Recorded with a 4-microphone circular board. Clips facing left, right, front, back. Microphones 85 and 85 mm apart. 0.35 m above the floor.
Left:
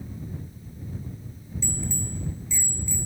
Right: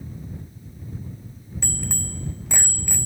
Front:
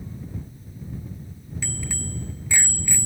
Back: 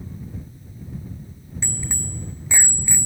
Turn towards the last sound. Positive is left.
turn(degrees=-110)